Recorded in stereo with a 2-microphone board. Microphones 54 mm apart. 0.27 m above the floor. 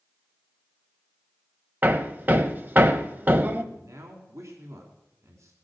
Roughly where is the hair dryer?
I don't hear a hair dryer.